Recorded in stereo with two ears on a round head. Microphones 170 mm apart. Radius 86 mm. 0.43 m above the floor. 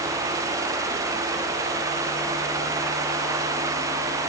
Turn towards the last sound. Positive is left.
No sound to turn to.